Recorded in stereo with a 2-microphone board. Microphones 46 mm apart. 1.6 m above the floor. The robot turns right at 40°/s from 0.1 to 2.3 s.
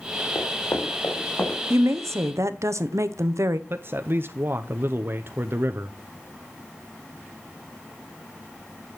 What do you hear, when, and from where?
0.3 s running footsteps: 65° left (ahead or behind), 4 m; by 1.6 s 45° left (ahead or behind), 5 m
1.7 s a woman speaking: 70° right (ahead or behind), 0.8 m; by 3.6 s 85° right, 0.8 m
3.7 s a man speaking: 50° right (ahead or behind), 0.6 m